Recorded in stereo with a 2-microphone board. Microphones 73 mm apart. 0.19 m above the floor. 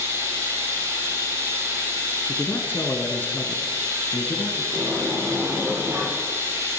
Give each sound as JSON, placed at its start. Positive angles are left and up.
{"t": 0.0, "sound": "running water", "side_deg": -35, "distance_m": 7.0}
{"t": 2.3, "sound": "a man speaking", "side_deg": 25, "distance_m": 1.6}
{"t": 4.7, "sound": "a sliding door", "side_deg": -35, "distance_m": 4.5}